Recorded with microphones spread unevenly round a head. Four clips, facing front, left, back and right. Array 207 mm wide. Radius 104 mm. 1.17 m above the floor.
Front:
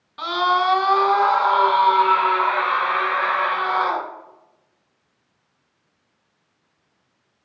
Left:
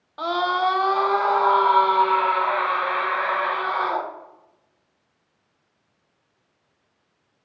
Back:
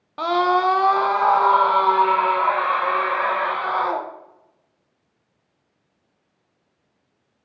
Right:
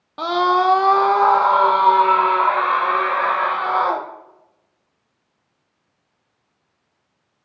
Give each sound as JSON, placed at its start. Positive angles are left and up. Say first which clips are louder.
{"t": 0.2, "sound": "a scream", "louder": "right 5 dB, back 1 dB", "azimuth_deg": -100, "distance_m": 0.7}